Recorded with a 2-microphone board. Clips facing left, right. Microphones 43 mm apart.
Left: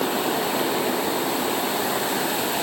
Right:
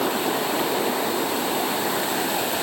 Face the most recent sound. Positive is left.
No sound to turn to.